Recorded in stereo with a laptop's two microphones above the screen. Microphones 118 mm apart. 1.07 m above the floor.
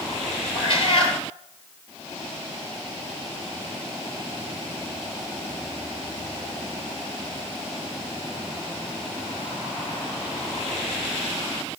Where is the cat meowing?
45° left (ahead or behind), 2.5 m.